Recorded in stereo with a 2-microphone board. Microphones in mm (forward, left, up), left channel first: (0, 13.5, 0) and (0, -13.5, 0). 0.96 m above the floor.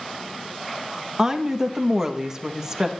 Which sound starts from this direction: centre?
A woman speaking, at 1.2 s.